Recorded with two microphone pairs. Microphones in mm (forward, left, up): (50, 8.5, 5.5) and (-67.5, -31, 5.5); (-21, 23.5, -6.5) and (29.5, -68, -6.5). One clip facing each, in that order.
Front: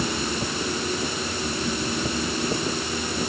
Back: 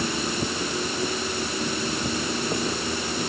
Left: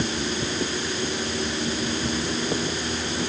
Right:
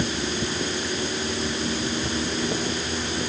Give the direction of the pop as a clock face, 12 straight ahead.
No pop in this recording.